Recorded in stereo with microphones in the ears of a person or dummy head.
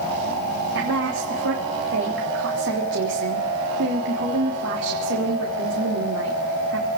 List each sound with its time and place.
0.8 s a woman speaking: 60° right (ahead or behind), 3.5 m